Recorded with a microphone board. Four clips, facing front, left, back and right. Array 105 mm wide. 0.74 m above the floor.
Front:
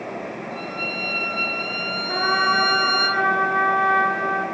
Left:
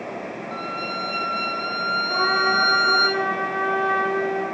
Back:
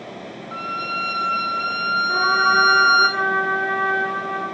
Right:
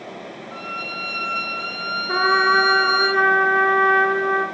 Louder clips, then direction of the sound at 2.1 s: Right 5 dB, back 1 dB; 80° right.